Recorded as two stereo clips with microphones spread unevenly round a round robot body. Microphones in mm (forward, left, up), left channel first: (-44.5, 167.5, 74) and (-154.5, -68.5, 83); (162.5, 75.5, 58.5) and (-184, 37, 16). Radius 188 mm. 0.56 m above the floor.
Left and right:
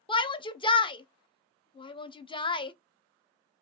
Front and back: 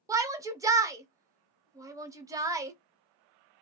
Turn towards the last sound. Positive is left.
turn(degrees=125)